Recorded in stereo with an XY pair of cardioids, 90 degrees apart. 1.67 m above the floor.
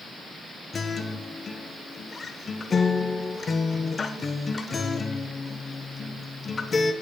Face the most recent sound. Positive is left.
turn(degrees=40)